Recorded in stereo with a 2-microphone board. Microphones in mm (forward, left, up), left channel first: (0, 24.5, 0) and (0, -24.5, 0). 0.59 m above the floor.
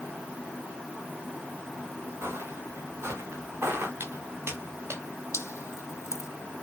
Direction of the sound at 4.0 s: 55° right (ahead or behind).